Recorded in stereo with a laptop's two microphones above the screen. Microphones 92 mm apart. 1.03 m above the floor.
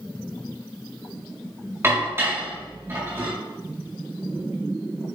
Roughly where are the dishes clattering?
Right.